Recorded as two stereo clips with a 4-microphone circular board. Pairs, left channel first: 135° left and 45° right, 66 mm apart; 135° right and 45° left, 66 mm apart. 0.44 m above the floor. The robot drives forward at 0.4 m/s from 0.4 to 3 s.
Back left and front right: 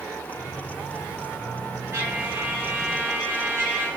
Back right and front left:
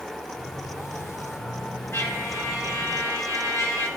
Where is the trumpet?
90° right, 4.5 m; by 3.9 s 95° right, 4.5 m.